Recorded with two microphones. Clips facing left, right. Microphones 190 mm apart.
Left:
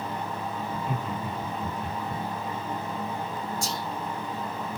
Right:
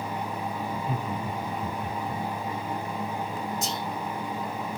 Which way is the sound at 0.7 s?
5° left (ahead or behind).